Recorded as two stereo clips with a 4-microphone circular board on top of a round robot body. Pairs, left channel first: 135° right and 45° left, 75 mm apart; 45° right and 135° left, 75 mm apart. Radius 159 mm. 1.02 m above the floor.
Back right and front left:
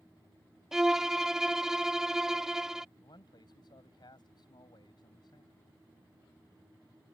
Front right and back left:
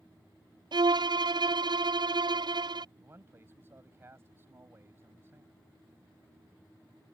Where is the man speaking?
165° right.